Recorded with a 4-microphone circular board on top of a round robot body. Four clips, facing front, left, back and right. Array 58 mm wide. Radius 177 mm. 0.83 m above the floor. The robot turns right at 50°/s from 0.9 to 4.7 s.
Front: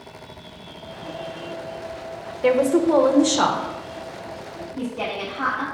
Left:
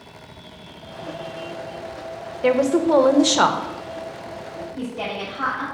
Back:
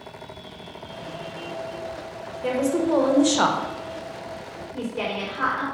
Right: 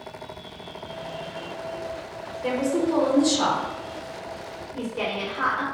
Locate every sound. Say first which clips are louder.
2.4 s a woman speaking: left 6 dB, front 5 dB; 50° left, 1.2 m; by 3.7 s 115° left, 1.2 m
4.7 s a woman speaking: right 1 dB, even; 135° right, 4 m